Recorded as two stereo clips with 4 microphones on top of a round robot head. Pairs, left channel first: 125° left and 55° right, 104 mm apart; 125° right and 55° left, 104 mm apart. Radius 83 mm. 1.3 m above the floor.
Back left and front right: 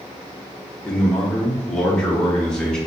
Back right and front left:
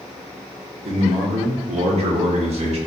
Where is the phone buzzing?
I don't hear a phone buzzing.